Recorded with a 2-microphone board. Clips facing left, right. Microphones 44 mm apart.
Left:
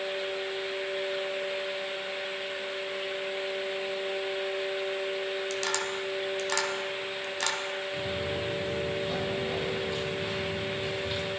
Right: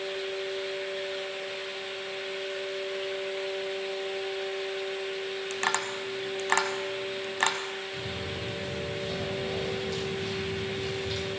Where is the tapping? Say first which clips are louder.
Right 1 dB; 35° right (ahead or behind), 2.0 m.